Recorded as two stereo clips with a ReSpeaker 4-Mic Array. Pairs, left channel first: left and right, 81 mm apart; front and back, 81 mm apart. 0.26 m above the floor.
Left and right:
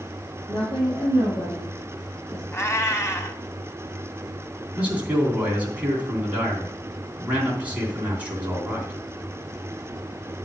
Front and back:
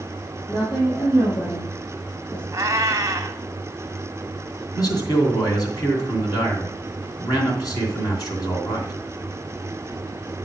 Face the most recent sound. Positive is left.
turn(degrees=-20)